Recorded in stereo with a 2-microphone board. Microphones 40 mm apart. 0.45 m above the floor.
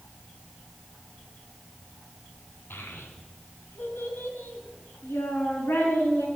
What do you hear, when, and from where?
2.7 s a child speaking: 75° left (ahead or behind), 2.5 m